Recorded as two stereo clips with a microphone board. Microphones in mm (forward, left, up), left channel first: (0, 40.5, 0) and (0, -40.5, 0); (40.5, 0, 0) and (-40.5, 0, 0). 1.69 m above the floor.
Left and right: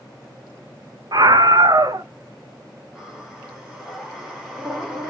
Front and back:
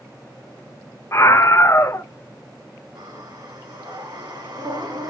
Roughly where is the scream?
Ahead right.